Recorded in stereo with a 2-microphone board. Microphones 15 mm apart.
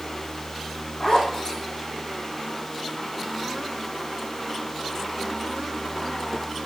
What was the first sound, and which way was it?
A zipper, 35° left (ahead or behind).